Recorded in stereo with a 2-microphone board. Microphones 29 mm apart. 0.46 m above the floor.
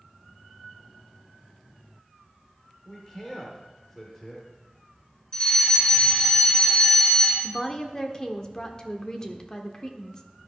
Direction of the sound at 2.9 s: 15° left (ahead or behind).